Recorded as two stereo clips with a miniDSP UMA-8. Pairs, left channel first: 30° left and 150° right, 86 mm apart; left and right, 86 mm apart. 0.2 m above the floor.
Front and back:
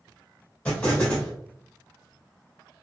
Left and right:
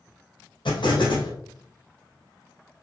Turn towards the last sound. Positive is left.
turn(degrees=105)